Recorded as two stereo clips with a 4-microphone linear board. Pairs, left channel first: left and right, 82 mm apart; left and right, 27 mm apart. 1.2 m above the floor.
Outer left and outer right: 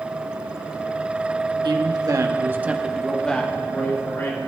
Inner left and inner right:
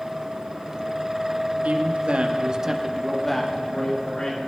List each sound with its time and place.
1.6 s a man speaking: 65° right (ahead or behind), 1.3 m; by 4.4 s 35° left (ahead or behind), 1.8 m